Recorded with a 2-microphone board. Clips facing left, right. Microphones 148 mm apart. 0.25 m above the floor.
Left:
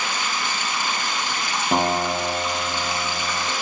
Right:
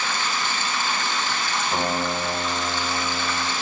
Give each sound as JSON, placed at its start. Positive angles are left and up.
{"t": 0.0, "sound": "running water", "side_deg": 15, "distance_m": 0.8}
{"t": 1.7, "sound": "a guitar", "side_deg": 55, "distance_m": 0.6}